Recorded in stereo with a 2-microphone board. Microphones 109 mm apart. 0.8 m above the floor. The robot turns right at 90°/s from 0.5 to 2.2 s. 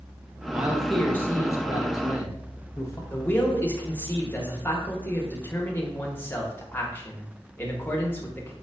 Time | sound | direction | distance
0.5 | a man speaking | 35° right | 0.7 m
3.1 | a man speaking | 20° left (ahead or behind) | 0.9 m